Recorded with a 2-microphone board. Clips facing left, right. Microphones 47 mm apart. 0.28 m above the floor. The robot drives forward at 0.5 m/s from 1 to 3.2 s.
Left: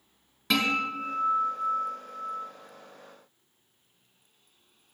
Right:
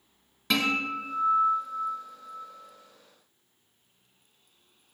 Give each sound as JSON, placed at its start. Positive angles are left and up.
{"t": 0.5, "sound": "a guitar", "side_deg": 0, "distance_m": 1.3}